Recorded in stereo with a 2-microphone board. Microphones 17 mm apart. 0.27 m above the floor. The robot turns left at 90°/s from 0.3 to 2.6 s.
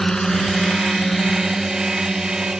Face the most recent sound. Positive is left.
turn(degrees=-75)  # may be behind; listen again after turning